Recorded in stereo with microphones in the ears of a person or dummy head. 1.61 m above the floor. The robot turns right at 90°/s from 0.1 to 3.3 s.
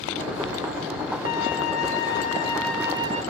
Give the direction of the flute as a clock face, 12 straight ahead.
10 o'clock.